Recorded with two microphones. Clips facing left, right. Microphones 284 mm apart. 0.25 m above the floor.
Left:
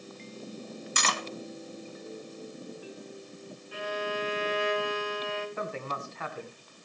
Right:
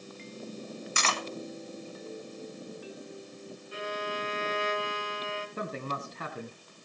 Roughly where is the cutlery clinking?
Left.